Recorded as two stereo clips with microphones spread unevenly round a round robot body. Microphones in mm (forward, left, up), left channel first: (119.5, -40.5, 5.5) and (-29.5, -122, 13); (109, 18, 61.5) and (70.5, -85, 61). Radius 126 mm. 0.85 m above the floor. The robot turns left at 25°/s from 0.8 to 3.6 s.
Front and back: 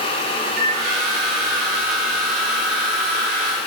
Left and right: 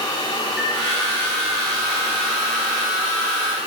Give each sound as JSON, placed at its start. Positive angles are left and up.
{"t": 0.5, "sound": "a microwave", "azimuth_deg": 165, "distance_m": 1.4}